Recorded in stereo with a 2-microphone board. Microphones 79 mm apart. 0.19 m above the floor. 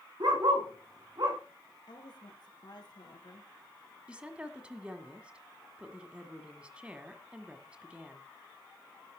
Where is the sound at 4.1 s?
15° right (ahead or behind), 1.7 m.